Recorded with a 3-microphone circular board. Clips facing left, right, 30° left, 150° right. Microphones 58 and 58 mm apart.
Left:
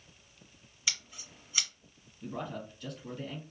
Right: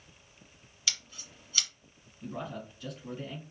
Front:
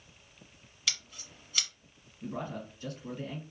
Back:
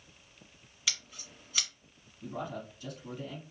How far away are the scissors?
About 1.4 m.